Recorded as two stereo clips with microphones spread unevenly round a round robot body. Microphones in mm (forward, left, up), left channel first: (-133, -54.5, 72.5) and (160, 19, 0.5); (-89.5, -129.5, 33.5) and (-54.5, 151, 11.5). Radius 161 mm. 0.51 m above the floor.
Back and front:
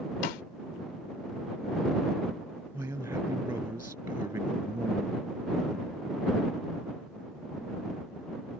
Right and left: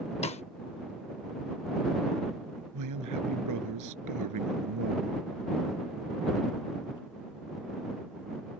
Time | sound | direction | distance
0.2 | a snare drum | 170° right | ?
2.7 | a man speaking | 95° left | ?